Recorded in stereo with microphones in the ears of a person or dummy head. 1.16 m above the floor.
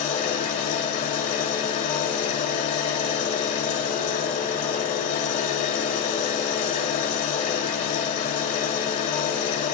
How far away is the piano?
No piano in this recording.